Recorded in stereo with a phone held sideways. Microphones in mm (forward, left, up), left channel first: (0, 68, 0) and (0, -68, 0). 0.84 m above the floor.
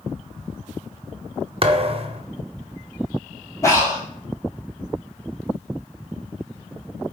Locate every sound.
1.6 s a thud: 45° right (ahead or behind), 0.7 m
3.6 s breathing: 20° left (ahead or behind), 4 m